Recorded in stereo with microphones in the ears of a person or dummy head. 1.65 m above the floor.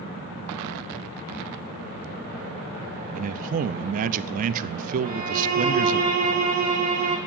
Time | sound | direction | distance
3.1 | a man speaking | 45° right (ahead or behind) | 0.8 m
5.0 | a violin | 40° right (ahead or behind) | 1.8 m